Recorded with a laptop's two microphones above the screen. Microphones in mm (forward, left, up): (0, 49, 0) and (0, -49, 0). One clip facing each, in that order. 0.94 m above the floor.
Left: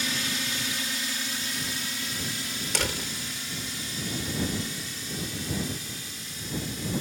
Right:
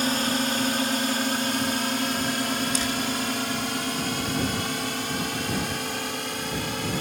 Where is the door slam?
85° left.